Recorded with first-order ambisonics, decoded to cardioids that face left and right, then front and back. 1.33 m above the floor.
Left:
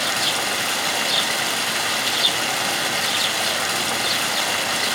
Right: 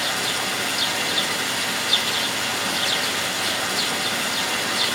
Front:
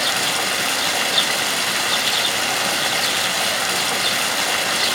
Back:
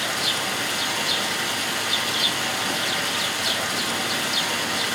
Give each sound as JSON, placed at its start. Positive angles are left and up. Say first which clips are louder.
{"t": 0.0, "sound": "running water", "louder": "left 2 dB, front 4 dB", "azimuth_deg": 25, "distance_m": 1.9}